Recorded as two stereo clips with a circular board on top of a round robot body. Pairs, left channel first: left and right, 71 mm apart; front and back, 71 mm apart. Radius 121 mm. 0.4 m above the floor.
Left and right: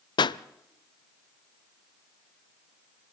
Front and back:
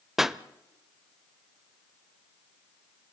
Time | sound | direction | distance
0.2 | a pop | 95° left | 0.5 m